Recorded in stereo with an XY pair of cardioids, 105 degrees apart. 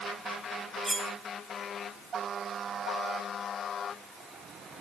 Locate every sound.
0.8 s cutlery clinking: 10° right, 2 m